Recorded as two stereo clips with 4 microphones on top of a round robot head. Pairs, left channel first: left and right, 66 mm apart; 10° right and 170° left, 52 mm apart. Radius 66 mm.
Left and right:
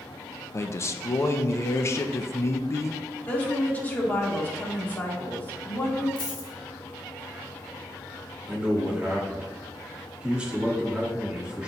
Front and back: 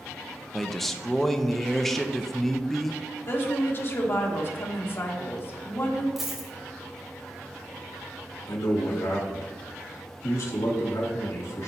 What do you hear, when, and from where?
0.5 s a man speaking: 80° left, 0.5 m
3.3 s a woman speaking: 30° left, 1.5 m
6.2 s a dropped coin: 90° left, 0.9 m
8.5 s a man speaking: 15° right, 1.7 m